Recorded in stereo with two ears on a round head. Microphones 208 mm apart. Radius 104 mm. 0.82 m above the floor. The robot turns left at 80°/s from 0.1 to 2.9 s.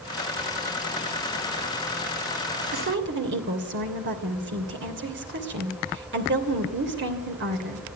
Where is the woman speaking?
65° right (ahead or behind), 2.5 m; by 7.9 s 55° right (ahead or behind), 2.5 m.